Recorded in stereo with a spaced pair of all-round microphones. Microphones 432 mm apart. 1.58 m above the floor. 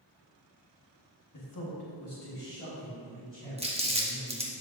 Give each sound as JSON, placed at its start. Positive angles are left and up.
{"t": 1.3, "sound": "a man speaking", "side_deg": 45, "distance_m": 1.5}
{"t": 3.6, "sound": "crumpling", "side_deg": -15, "distance_m": 1.1}